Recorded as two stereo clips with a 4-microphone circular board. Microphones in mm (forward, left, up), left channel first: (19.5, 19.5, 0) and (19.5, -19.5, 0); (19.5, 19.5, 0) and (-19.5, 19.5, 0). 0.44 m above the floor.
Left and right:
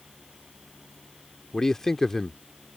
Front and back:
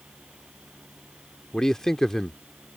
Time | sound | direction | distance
1.5 | a man speaking | 45° left | ?